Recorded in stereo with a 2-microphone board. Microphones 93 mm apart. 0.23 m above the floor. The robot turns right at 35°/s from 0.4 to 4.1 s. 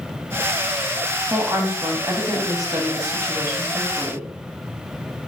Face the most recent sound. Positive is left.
turn(degrees=-35)